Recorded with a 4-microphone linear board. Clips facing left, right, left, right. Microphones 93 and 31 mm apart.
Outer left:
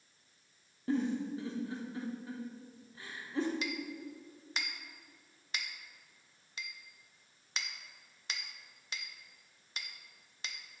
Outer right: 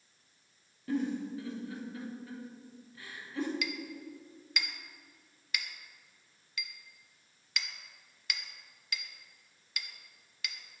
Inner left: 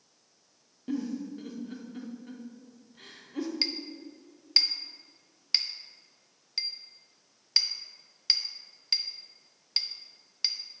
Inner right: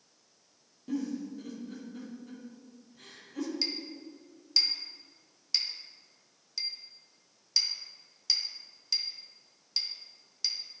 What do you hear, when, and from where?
0.9 s a giggle: 30° left (ahead or behind), 1.2 m
3.6 s a clink: 30° left (ahead or behind), 0.6 m